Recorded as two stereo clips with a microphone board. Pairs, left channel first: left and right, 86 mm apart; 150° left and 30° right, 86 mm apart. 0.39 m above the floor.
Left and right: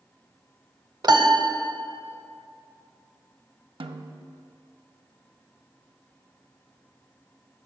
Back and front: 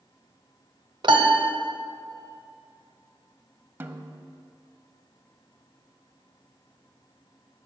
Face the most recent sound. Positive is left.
turn(degrees=-95)